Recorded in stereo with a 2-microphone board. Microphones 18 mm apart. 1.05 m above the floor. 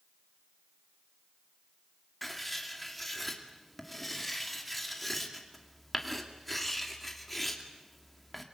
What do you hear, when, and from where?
2.2 s writing: 10° left (ahead or behind), 2.5 m